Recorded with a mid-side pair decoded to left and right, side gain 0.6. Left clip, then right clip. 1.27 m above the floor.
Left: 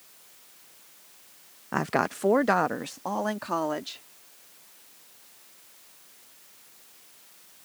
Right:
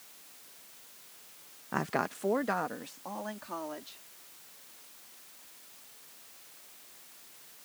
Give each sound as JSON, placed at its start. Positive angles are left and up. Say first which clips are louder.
{"t": 1.7, "sound": "a woman speaking", "louder": "left 6 dB", "azimuth_deg": 25}